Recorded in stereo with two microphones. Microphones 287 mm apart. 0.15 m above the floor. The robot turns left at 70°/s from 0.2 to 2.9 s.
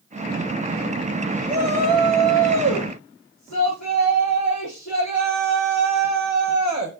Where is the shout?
175° left, 5 m; by 6.9 s 75° left, 5 m.